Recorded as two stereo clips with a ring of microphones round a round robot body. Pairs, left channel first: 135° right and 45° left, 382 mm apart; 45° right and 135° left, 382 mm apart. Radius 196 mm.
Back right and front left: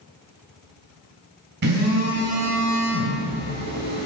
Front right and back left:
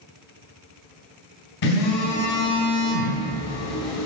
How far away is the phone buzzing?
About 3.5 m.